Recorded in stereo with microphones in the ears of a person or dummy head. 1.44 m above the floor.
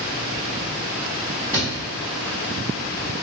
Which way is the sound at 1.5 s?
10° right (ahead or behind).